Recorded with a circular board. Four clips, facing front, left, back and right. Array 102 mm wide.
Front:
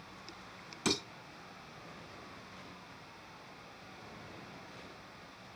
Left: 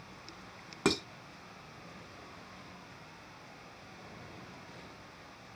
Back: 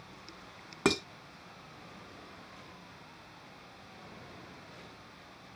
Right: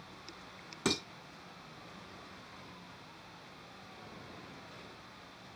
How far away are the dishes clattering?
About 0.8 m.